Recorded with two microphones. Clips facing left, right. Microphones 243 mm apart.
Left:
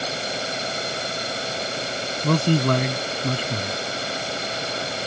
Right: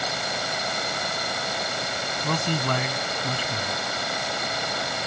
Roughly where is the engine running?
Left.